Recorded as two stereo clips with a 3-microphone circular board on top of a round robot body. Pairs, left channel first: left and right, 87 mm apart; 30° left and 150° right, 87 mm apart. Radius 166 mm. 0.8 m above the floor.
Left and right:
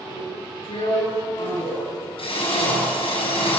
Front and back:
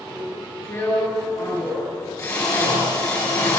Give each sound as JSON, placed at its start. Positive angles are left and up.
{"t": 0.1, "sound": "a drill", "azimuth_deg": 85, "distance_m": 8.0}